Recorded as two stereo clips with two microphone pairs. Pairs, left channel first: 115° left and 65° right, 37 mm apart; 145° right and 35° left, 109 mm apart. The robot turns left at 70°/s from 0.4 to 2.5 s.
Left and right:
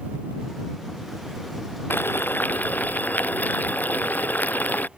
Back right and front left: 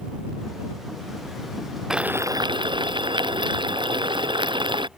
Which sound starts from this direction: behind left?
Boiling, at 1.9 s.